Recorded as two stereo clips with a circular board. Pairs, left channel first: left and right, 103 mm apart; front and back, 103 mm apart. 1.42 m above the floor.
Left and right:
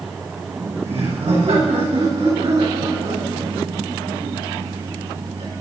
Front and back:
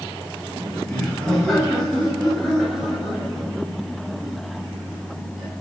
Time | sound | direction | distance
0.5 | laughter | 80° right | 8.5 m